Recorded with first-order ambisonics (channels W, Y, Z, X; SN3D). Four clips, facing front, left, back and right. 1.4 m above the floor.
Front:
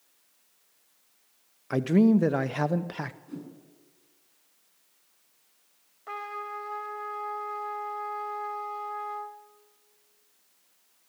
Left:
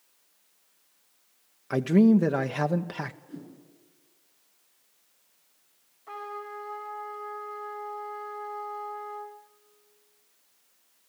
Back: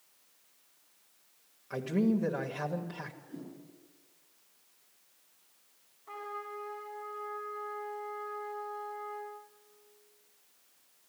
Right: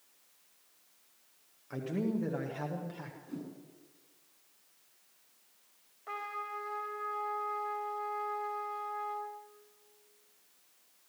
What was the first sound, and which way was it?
A man speaking, 50° left.